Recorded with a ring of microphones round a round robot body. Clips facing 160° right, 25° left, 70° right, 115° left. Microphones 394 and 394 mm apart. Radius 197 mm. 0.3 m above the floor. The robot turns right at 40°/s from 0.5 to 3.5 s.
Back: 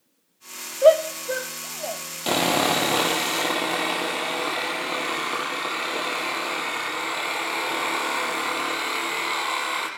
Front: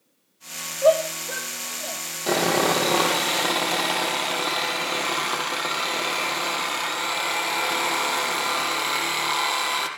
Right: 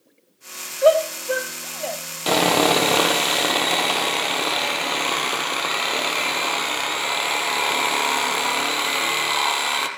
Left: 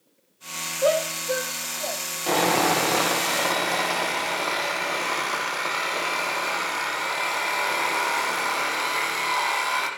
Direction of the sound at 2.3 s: 100° right.